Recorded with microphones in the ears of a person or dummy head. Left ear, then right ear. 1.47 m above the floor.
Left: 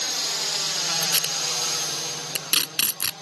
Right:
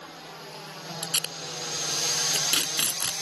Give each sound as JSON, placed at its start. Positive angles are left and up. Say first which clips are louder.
{"t": 0.0, "sound": "a drone", "louder": "left 16 dB", "side_deg": 65}
{"t": 1.0, "sound": "tape being pulled", "louder": "left 7 dB", "side_deg": 10}